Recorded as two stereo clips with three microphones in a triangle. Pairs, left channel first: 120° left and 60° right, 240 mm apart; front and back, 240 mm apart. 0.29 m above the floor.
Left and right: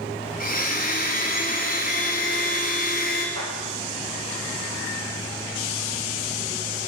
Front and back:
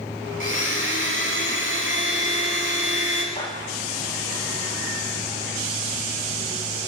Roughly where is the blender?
Behind.